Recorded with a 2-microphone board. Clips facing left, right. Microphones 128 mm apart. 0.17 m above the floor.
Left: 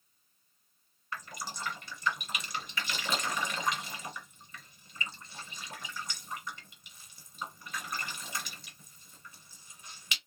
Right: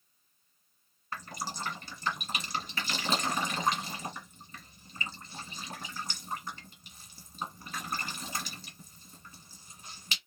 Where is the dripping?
35° right (ahead or behind), 1.4 m.